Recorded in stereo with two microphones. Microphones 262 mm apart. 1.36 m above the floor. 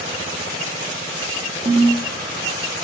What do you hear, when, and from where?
1.6 s a ringtone: 20° right (ahead or behind), 0.8 m